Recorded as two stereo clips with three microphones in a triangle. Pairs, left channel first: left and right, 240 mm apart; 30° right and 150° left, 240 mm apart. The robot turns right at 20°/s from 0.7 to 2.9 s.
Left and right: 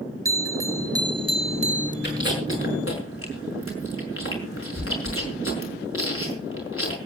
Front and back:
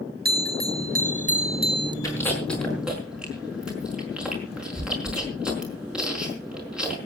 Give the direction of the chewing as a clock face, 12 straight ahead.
10 o'clock.